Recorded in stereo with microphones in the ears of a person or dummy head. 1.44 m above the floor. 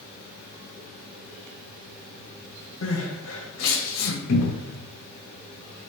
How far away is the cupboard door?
About 1.0 m.